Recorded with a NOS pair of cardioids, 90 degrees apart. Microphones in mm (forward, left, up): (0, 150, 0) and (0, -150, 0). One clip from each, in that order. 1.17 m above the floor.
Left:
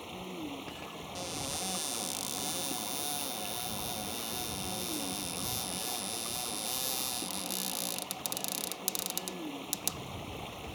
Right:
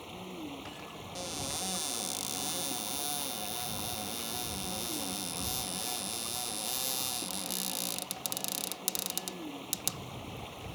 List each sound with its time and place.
0.0 s running water: 10° left
1.1 s a cupboard door: 5° right